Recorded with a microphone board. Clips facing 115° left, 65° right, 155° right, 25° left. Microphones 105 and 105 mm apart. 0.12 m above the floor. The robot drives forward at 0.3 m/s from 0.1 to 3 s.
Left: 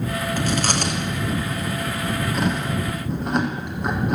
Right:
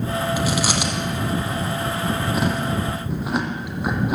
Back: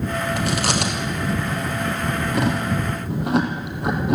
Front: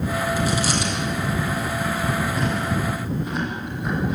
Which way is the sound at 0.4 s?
150° right.